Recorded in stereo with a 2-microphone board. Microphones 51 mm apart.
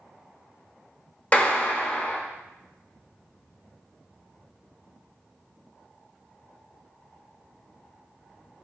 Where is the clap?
30° left (ahead or behind), 0.6 m.